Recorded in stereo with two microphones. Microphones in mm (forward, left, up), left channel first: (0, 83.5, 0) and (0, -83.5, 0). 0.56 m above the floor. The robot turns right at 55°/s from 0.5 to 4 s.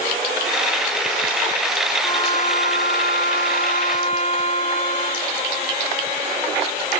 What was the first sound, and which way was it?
A trumpet, 30° left.